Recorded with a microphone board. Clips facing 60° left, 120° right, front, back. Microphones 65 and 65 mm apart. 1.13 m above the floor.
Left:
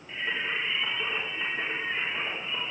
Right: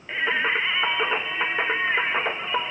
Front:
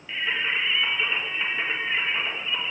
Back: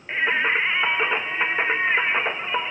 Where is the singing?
135° right, 1.3 m.